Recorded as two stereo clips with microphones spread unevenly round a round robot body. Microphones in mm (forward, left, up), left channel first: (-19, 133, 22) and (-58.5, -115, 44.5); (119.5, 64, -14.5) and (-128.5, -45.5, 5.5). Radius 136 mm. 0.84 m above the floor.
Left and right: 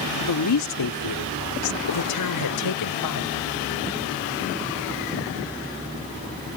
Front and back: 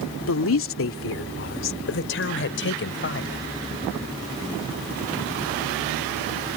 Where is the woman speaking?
65° left; by 3.4 s 70° left.